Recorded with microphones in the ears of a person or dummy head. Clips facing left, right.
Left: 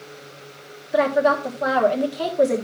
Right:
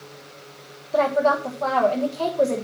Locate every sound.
0.9 s a woman speaking: 20° left (ahead or behind), 1.2 m